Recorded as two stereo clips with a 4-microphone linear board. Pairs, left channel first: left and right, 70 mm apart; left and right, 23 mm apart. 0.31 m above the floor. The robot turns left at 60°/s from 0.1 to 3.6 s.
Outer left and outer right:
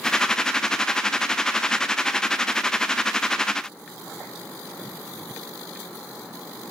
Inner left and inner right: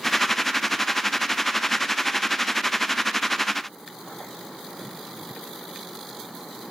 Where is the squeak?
I don't hear a squeak.